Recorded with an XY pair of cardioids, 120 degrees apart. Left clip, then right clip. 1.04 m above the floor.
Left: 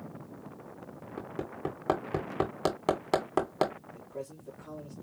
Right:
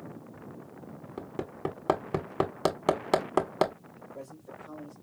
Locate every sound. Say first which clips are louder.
1.2 s hammering: right 1 dB; 15° right, 1.6 m
4.0 s a man speaking: left 3 dB; 70° left, 3.5 m